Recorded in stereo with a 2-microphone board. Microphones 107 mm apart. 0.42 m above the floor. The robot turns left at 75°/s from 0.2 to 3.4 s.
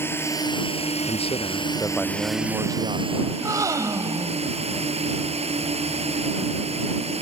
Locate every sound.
0.0 s a drone: 160° left; by 7.2 s 80° right
1.0 s a man speaking: 80° left; by 3.2 s 85° right
3.3 s a gasp: 40° right (ahead or behind); by 4.5 s 35° right (ahead or behind)